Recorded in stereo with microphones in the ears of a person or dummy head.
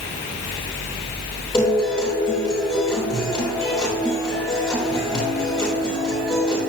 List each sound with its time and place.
1.5 s a guitar: 15° left (ahead or behind), 4 m